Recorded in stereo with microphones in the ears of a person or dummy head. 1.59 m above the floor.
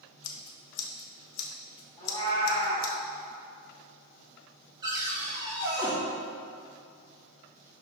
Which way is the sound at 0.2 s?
75° left (ahead or behind).